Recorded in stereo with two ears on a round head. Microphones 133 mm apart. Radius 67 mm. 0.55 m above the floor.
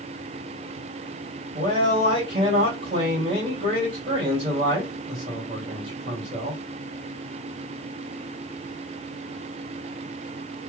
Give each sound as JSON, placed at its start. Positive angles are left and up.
{"t": 1.6, "sound": "a man speaking", "side_deg": -40, "distance_m": 3.0}